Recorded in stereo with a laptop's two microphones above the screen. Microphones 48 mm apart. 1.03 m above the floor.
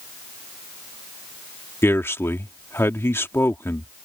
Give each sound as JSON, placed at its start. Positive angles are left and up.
{"t": 1.8, "sound": "a man speaking", "side_deg": 60}